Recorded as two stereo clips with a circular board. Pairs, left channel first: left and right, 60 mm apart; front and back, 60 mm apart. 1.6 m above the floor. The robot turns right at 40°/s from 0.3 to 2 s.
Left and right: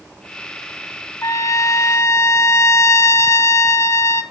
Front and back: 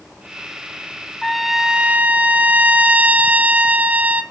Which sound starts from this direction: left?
A trumpet, at 1.2 s.